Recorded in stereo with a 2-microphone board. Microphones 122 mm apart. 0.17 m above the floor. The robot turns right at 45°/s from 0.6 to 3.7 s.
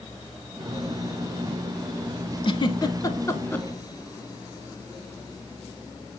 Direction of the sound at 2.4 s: 45° left (ahead or behind).